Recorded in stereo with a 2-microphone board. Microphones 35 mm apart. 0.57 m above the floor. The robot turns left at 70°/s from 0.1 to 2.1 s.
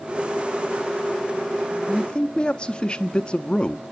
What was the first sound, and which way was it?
A man speaking, 25° left (ahead or behind).